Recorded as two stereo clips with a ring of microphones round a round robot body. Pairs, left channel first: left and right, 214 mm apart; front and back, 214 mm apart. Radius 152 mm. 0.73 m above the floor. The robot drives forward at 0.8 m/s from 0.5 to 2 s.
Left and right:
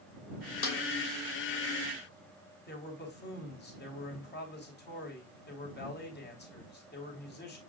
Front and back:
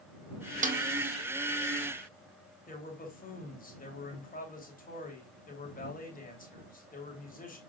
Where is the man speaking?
50° left, 3 m.